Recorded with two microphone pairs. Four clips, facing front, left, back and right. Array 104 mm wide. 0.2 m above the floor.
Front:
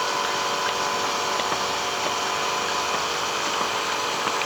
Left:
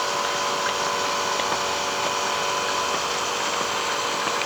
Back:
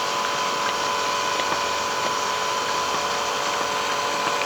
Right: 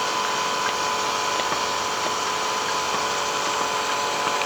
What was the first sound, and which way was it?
Only background noise.